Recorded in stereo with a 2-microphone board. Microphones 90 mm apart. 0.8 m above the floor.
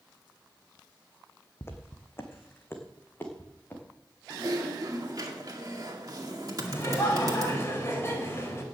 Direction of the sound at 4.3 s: 45° right (ahead or behind).